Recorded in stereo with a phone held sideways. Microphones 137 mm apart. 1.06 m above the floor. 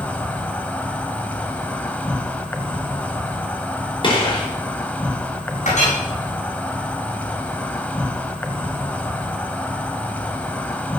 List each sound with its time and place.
0.0 s an insect: 10° left (ahead or behind), 1.3 m
4.0 s a gunshot: 35° left (ahead or behind), 4.5 m
5.7 s a clink: 60° left (ahead or behind), 7 m